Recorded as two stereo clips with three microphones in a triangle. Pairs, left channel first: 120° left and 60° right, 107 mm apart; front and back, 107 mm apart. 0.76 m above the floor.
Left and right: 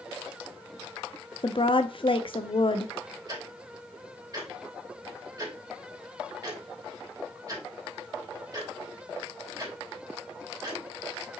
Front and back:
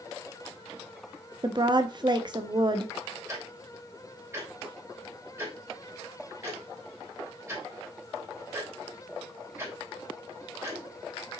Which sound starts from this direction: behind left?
A woman speaking, at 1.4 s.